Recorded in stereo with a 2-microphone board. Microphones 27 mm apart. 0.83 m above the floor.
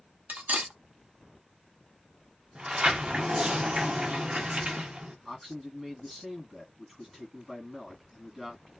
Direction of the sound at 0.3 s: 75° right (ahead or behind).